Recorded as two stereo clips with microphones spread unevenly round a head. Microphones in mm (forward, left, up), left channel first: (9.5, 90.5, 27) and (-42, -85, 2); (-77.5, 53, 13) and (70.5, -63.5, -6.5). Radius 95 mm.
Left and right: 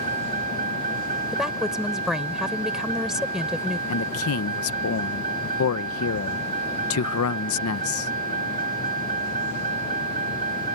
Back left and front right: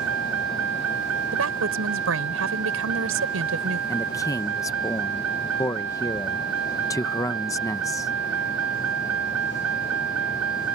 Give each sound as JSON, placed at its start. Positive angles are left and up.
{"t": 0.0, "sound": "a vehicle", "azimuth_deg": -55}
{"t": 1.3, "sound": "a woman speaking", "azimuth_deg": -20}
{"t": 3.9, "sound": "a man speaking", "azimuth_deg": 65}